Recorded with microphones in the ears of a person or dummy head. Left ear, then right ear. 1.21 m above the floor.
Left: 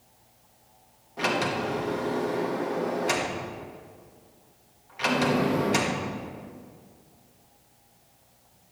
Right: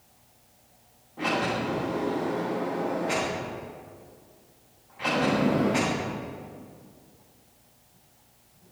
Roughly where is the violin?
I don't hear a violin.